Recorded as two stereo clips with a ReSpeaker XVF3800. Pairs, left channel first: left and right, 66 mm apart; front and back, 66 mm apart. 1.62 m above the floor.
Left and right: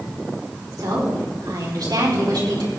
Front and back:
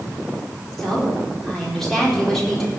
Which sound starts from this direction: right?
A woman speaking, at 0.8 s.